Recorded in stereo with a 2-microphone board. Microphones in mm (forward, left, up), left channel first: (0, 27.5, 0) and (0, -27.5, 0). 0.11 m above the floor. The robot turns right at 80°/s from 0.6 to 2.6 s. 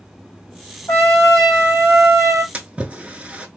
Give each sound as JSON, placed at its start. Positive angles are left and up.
{"t": 0.9, "sound": "a trumpet", "azimuth_deg": 135, "distance_m": 1.1}
{"t": 2.5, "sound": "a splash", "side_deg": -25, "distance_m": 0.5}